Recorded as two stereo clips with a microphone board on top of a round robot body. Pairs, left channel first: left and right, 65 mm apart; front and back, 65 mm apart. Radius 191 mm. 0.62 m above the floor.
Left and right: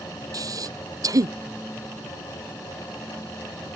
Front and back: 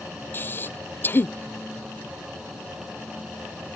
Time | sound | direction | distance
0.3 | breathing | 60° right | ?